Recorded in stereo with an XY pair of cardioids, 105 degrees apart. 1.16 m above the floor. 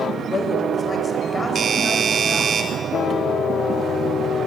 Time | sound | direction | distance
0.2 | a woman speaking | 40° left | 5.5 m
1.6 | a doorbell | 50° right | 3.5 m